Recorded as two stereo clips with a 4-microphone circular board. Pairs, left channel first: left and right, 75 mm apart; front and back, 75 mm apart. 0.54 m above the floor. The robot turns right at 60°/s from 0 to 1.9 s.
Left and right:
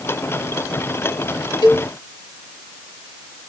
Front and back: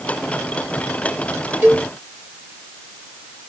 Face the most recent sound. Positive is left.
turn(degrees=135)